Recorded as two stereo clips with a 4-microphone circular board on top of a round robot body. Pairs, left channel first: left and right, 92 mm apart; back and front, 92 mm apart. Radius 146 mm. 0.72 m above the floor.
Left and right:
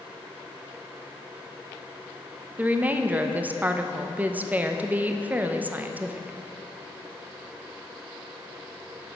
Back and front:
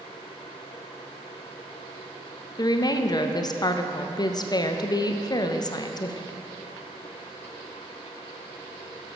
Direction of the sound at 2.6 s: 155° right.